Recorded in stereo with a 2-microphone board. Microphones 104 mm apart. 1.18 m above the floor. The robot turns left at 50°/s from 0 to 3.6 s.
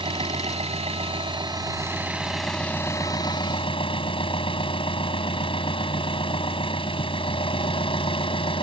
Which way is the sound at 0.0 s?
60° right.